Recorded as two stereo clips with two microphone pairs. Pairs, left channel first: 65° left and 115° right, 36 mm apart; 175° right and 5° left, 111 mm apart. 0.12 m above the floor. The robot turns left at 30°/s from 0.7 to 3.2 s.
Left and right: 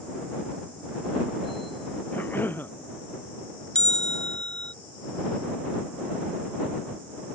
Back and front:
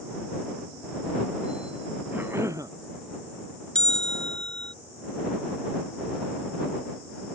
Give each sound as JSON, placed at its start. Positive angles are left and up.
{"t": 2.1, "sound": "a cough", "azimuth_deg": 75}
{"t": 3.8, "sound": "a bell", "azimuth_deg": 105}